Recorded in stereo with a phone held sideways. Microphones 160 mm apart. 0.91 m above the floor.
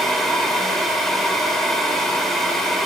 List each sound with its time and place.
0.0 s a fan: centre (ahead or behind), 1.5 m